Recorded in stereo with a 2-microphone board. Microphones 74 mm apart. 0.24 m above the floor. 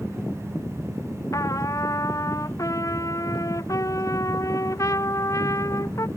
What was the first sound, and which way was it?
A trumpet, 45° left (ahead or behind).